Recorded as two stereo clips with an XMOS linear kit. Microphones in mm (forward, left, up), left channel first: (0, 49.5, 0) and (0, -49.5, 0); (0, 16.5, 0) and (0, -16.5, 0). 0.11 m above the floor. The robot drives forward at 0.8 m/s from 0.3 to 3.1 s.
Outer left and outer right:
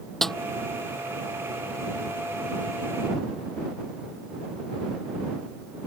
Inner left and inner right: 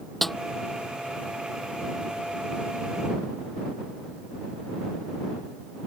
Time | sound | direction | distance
0.2 | a snare drum | 5° left (ahead or behind) | ?